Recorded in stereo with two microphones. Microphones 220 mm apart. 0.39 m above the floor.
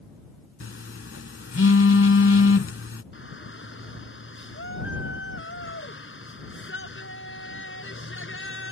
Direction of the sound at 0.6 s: 65° left (ahead or behind).